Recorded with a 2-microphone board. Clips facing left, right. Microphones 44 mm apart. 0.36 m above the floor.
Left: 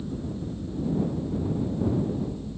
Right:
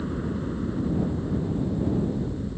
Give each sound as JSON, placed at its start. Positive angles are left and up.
{"t": 0.0, "sound": "a helicopter", "side_deg": -60}